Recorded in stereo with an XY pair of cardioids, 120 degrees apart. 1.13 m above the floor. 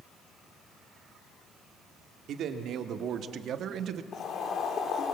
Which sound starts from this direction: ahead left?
Boiling, at 4.1 s.